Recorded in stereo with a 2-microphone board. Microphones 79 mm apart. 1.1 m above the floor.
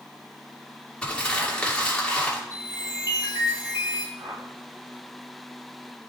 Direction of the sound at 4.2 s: 55° right (ahead or behind).